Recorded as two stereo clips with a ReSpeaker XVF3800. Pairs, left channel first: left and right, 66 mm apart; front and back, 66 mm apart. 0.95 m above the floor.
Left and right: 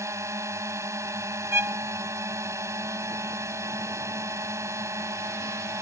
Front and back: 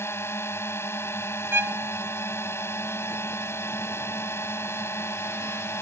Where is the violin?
130° right.